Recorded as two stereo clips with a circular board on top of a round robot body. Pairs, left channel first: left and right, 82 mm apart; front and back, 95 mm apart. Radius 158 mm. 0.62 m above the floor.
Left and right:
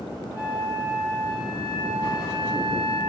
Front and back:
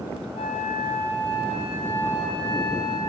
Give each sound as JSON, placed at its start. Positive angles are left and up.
{"t": 0.3, "sound": "a flute", "azimuth_deg": -20, "distance_m": 5.5}